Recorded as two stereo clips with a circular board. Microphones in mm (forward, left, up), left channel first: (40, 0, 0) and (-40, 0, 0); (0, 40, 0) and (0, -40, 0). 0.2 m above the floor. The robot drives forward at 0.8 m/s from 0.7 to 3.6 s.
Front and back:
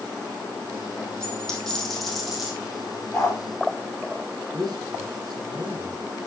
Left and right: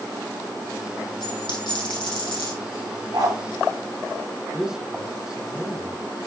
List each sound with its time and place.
1.2 s a dropped coin: 80° left, 4 m; by 2.5 s 95° left, 4 m
3.1 s a dog barking: 70° right, 3 m; by 3.4 s 75° right, 3 m
4.5 s a man speaking: 170° right, 2.5 m